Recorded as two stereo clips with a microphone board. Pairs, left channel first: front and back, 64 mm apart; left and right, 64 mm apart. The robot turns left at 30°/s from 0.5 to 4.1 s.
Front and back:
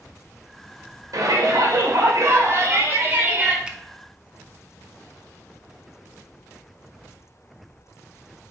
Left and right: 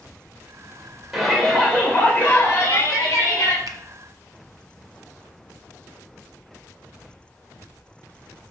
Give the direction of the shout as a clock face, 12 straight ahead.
6 o'clock.